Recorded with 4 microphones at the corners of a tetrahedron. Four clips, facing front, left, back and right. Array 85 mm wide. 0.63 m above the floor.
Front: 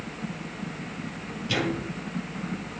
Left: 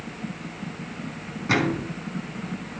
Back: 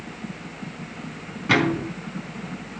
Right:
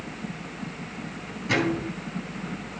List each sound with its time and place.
1.5 s a microwave: 160° left, 4 m